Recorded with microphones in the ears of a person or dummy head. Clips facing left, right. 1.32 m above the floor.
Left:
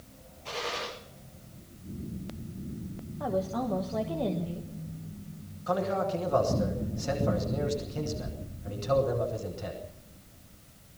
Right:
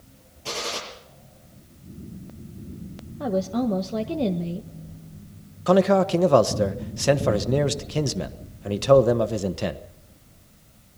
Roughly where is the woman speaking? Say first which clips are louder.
Right 6 dB; right.